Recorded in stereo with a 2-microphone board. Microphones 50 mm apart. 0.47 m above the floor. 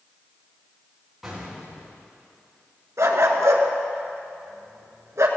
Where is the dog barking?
80° right, 1.4 m.